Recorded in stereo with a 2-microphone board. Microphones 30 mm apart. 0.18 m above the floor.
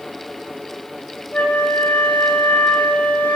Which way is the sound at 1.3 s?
50° left (ahead or behind).